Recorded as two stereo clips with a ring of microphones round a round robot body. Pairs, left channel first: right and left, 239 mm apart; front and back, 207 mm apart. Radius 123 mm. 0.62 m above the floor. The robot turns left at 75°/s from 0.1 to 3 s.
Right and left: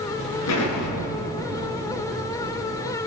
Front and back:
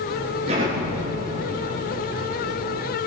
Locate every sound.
0.5 s an explosion: 110° right, 8.5 m; by 3.0 s 60° left, 8.5 m